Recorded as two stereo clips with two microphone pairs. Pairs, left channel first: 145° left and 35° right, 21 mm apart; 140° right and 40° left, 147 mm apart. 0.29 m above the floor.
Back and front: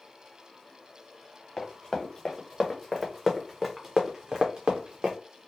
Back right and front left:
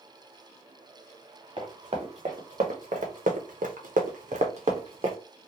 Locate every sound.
1.6 s running footsteps: 85° left, 1.5 m; by 5.2 s 10° right, 1.0 m